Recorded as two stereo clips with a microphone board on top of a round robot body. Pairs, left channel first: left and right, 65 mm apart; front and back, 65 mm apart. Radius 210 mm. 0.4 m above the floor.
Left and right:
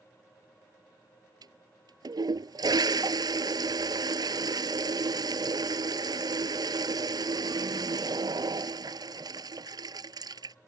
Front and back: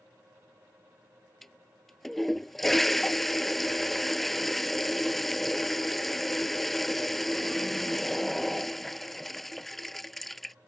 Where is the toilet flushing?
85° right.